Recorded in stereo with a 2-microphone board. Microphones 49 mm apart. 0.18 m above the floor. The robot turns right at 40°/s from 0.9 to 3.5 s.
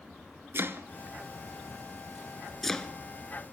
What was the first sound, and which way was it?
Chopping, 55° right (ahead or behind).